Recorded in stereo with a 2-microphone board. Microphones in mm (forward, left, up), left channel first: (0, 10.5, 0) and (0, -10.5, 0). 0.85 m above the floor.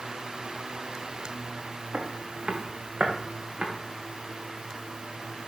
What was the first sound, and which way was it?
Footsteps, 75° right (ahead or behind).